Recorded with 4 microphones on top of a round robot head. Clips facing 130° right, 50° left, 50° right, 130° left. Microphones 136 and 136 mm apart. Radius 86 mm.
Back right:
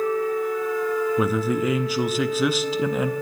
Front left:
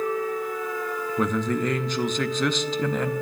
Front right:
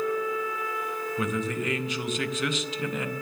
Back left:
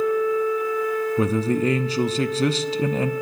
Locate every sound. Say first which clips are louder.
1.2 s a man speaking: back right 2 dB, back left 7 dB; 150° left, 0.7 m